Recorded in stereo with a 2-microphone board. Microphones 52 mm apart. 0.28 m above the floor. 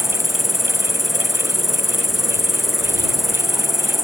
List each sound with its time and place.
0.0 s an insect: 5° right (ahead or behind)